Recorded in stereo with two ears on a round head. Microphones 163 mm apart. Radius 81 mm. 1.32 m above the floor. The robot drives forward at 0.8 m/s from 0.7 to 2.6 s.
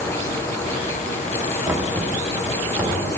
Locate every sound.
1.7 s knocking: 10° right (ahead or behind), 0.6 m; by 3.1 s 5° right (ahead or behind), 1.3 m